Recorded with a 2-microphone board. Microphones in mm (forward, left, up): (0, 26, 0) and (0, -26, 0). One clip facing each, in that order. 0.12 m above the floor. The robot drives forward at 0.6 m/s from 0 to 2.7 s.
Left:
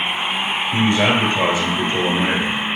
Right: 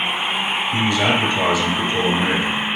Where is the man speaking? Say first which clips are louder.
Left 2 dB; 35° left (ahead or behind), 1.9 m; by 2.6 s 25° left (ahead or behind), 2.5 m.